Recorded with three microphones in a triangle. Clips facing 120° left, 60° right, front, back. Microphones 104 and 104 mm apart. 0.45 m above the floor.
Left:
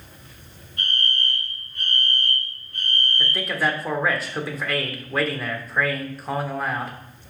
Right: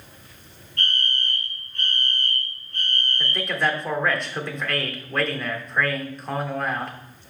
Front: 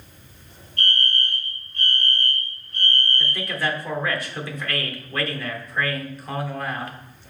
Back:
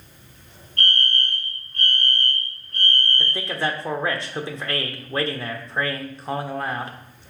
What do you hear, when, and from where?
0.8 s a fire alarm: 160° right, 3 m
3.2 s a man speaking: 155° right, 1.1 m